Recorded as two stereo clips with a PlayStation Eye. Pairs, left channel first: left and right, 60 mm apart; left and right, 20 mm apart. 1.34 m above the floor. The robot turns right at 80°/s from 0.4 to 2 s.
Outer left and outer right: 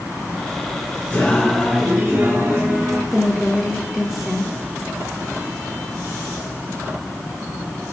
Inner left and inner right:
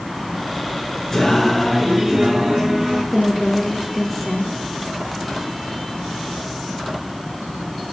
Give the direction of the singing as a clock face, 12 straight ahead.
7 o'clock.